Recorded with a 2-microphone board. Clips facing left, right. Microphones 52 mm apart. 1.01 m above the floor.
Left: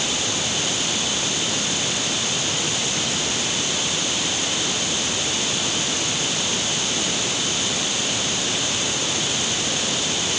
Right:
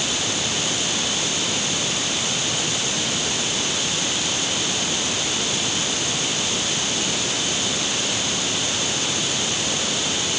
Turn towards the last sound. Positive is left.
No sound to turn to.